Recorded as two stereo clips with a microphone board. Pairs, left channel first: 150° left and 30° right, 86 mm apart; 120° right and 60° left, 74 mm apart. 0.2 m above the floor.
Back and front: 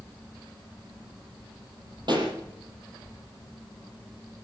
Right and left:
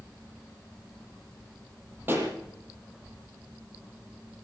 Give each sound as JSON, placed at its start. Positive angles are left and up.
{"t": 2.1, "sound": "a pop", "azimuth_deg": 0, "distance_m": 6.5}